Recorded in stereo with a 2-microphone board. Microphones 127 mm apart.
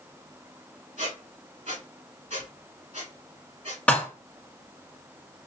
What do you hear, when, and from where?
1.0 s a squeak: 70° right (ahead or behind), 1.7 m
3.9 s dishes clattering: 10° left (ahead or behind), 1.0 m